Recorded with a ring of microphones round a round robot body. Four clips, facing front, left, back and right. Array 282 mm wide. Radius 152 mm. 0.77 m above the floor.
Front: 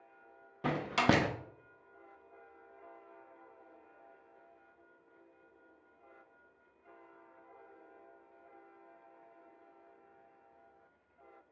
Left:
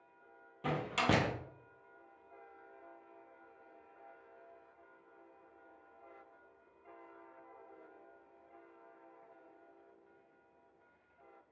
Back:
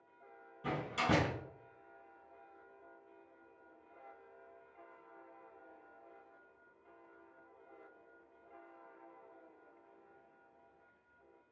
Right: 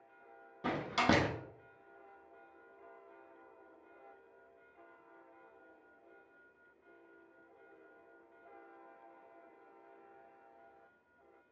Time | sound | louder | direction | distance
0.6 | a door slam | right 1 dB, front 5 dB | 10° right | 0.6 m